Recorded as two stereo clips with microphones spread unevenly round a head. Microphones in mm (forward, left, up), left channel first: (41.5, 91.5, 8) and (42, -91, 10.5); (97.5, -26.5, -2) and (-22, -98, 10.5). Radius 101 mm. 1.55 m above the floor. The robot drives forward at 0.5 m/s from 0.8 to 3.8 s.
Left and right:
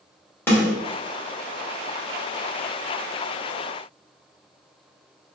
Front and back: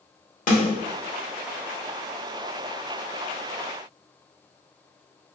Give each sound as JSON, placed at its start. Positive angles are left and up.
{"t": 0.5, "sound": "a snare drum", "azimuth_deg": 10, "distance_m": 1.5}